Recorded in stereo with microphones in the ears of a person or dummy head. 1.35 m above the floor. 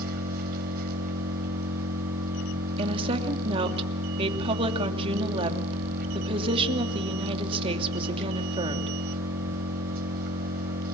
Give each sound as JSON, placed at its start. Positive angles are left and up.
{"t": 0.0, "sound": "an engine running", "side_deg": -55, "distance_m": 3.0}
{"t": 2.8, "sound": "a woman speaking", "side_deg": -35, "distance_m": 2.5}